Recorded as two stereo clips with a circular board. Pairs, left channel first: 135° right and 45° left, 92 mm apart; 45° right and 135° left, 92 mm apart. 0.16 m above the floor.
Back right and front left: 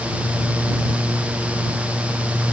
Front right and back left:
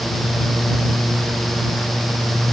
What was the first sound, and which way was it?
Only background noise.